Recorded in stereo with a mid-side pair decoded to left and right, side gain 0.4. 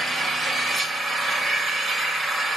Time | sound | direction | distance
0.0 | an engine running | 45° right | 3.5 m